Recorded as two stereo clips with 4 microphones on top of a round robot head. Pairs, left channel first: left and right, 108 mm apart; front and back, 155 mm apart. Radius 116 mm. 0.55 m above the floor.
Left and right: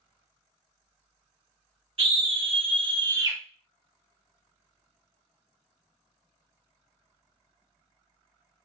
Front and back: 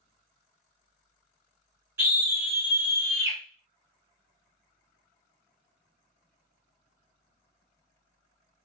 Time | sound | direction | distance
2.0 | a scream | 110° right | 1.6 m